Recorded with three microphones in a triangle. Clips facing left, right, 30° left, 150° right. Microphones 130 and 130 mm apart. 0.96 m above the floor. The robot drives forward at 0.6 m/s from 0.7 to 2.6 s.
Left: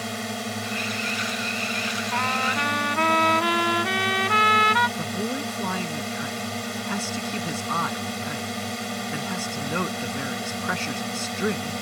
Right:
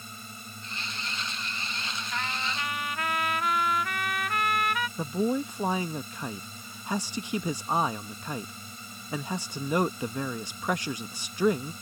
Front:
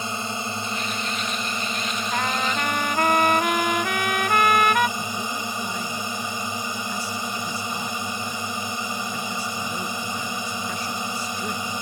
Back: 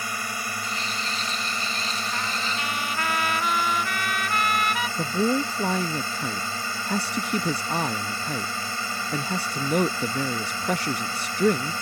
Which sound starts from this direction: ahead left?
A trumpet, at 2.1 s.